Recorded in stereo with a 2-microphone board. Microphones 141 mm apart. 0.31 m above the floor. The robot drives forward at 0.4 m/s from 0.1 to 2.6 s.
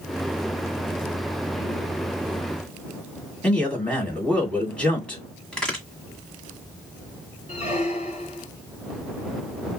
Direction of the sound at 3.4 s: 5° left (ahead or behind).